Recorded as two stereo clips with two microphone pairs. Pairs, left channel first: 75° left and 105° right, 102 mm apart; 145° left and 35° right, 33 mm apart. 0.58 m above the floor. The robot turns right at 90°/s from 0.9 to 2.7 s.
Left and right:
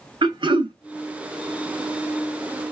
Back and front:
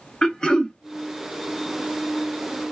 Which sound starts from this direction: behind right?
Throat clearing, at 0.2 s.